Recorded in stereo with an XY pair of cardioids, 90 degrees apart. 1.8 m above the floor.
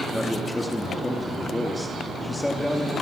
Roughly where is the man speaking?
Ahead.